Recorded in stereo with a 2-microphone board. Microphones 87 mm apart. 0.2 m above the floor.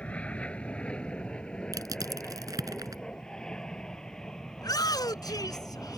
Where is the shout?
50° left (ahead or behind).